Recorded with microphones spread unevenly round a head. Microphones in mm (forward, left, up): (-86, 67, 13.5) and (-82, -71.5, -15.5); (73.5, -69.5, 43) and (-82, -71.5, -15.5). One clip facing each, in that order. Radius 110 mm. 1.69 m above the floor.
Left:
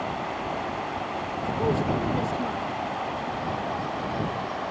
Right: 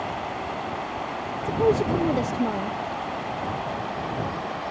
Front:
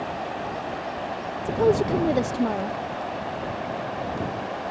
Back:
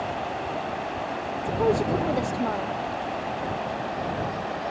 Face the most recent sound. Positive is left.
turn(degrees=-30)